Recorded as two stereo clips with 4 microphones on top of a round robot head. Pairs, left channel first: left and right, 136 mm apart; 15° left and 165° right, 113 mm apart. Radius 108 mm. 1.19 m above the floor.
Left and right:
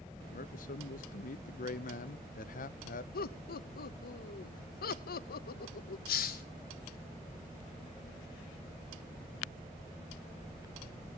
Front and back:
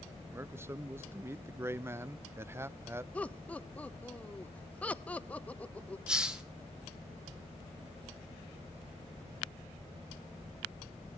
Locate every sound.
0.3 s a man speaking: 125° left, 0.6 m
3.1 s laughter: 90° left, 0.8 m
6.1 s a hiss: 110° left, 1.6 m